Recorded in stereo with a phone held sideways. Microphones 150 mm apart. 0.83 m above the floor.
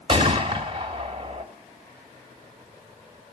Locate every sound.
0.1 s a gunshot: 35° right (ahead or behind), 1.7 m